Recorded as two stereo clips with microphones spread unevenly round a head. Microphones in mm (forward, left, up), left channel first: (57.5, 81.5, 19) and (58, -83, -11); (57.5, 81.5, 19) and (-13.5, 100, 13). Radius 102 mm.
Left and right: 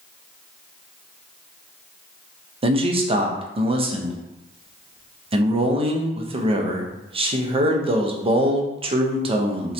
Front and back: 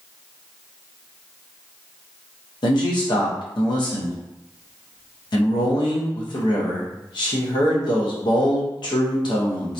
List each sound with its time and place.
2.6 s a man speaking: 35° right, 0.6 m